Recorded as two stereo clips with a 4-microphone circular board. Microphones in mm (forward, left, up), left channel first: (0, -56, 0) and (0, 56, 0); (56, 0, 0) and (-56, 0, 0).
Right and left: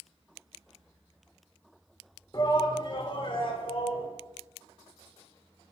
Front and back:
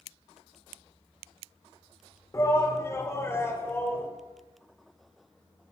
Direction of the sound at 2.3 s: 50° right.